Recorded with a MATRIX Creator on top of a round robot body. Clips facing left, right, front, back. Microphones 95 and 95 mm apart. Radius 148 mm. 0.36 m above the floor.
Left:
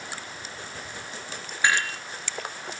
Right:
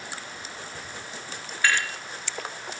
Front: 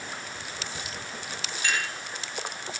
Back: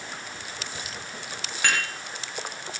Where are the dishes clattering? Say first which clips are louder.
Left 1 dB, back 3 dB; 160° left, 5.5 m.